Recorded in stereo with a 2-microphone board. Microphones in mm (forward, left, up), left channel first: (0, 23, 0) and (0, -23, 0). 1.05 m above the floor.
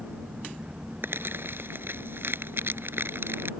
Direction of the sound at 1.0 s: 60° right (ahead or behind).